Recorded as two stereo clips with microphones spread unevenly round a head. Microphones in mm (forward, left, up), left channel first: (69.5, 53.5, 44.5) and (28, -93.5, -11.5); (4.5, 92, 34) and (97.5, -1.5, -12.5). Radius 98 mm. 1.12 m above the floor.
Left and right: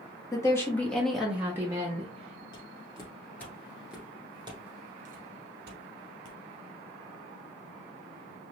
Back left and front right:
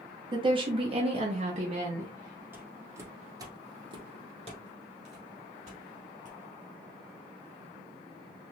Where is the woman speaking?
Straight ahead, 1.1 m; by 2.4 s 70° right, 1.0 m.